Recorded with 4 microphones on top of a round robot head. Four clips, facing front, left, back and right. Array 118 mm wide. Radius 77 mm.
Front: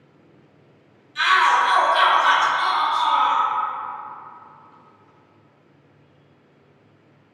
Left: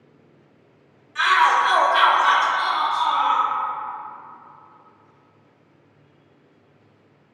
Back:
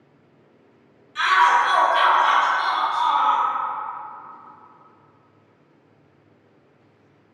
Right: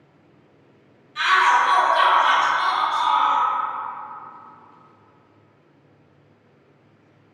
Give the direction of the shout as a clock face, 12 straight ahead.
8 o'clock.